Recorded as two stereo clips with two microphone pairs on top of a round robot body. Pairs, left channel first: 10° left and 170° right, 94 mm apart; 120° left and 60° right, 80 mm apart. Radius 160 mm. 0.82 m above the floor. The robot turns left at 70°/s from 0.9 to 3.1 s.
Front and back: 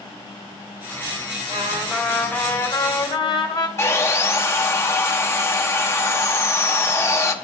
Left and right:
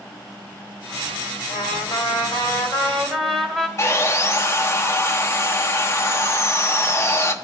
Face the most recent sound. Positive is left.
turn(degrees=65)